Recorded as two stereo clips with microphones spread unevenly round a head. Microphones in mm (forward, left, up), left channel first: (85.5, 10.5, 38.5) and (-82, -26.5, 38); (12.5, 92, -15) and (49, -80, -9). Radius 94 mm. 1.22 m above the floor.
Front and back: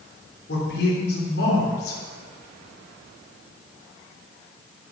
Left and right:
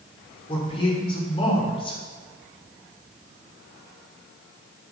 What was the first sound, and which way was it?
A man speaking, 40° left.